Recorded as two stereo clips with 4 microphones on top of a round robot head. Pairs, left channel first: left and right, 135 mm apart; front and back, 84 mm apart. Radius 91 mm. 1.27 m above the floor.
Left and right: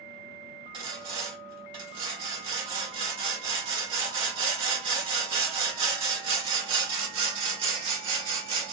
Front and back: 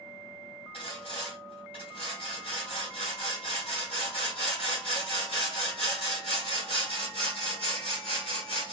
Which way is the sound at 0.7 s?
40° right.